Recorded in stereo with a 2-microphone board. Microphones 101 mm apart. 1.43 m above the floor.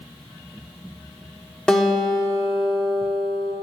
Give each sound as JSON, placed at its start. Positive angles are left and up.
{"t": 1.7, "sound": "a guitar", "side_deg": 5, "distance_m": 1.0}